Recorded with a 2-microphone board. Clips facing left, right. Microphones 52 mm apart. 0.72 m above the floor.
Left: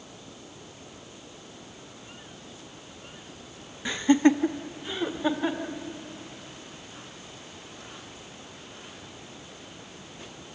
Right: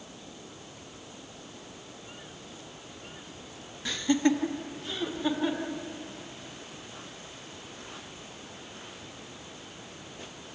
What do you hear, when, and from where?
3.9 s laughter: 20° left (ahead or behind), 0.6 m